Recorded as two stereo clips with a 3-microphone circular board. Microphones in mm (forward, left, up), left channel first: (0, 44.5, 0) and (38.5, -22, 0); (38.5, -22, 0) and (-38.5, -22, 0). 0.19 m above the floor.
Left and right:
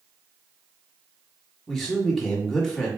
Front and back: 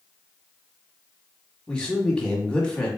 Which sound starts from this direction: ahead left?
A man speaking, at 1.7 s.